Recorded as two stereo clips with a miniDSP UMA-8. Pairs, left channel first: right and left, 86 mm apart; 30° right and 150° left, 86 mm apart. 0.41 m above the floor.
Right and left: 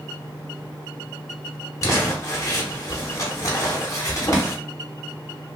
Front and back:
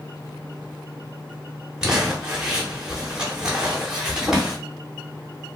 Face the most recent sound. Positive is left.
turn(degrees=-130)